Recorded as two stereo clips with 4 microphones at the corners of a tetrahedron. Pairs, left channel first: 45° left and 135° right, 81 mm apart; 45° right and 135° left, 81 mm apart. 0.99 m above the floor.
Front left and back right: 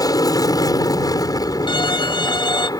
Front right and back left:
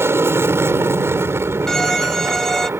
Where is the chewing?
I don't hear chewing.